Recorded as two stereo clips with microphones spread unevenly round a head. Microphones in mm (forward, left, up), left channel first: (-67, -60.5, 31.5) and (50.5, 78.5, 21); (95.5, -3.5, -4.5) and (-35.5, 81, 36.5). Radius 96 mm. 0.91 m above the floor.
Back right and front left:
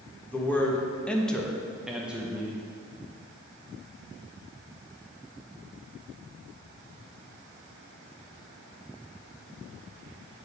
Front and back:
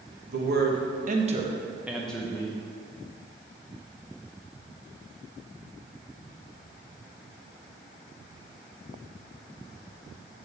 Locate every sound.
0.3 s a man speaking: 150° left, 1.3 m; by 2.6 s 25° right, 1.0 m